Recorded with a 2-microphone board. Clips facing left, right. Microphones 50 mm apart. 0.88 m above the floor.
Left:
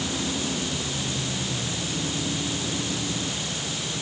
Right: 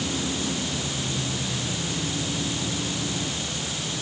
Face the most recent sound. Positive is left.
No sound to turn to.